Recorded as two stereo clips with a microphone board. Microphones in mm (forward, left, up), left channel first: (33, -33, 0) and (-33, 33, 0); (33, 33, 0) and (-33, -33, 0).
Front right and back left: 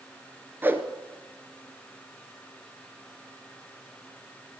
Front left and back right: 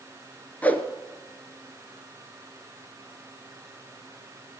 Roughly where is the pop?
No pop in this recording.